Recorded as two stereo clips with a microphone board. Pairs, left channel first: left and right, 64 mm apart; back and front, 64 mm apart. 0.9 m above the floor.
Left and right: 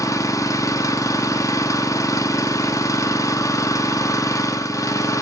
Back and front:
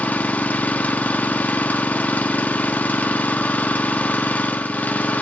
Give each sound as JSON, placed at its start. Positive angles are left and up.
{"t": 0.0, "sound": "an engine running", "azimuth_deg": 115, "distance_m": 0.8}